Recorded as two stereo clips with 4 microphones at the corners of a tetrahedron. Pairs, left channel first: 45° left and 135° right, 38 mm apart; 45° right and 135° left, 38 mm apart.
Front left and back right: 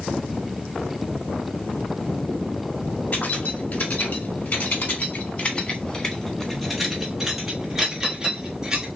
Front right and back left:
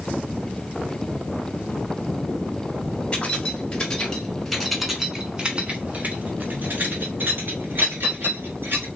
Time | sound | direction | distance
3.1 | keys jangling | 15° left | 1.6 m